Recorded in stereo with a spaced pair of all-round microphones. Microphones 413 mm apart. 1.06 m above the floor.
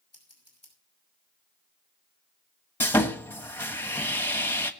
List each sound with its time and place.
0.1 s scissors: 50° left (ahead or behind), 6 m
2.8 s sawing: 5° left (ahead or behind), 1.3 m